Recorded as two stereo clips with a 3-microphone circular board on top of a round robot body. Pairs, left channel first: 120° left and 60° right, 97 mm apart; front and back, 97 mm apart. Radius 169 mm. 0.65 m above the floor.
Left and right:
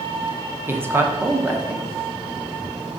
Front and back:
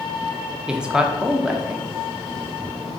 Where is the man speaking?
105° right, 0.9 m.